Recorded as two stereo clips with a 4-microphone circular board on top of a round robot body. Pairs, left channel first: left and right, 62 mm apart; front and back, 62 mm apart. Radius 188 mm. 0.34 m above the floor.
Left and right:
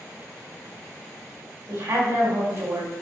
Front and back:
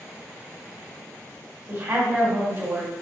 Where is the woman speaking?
125° right, 3 m.